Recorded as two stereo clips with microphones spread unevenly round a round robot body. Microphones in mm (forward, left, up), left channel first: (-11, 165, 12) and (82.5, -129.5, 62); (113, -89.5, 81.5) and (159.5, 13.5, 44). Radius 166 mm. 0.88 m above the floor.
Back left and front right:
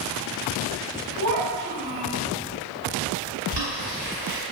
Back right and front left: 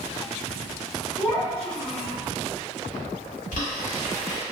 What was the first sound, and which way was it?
A child speaking, 60° right.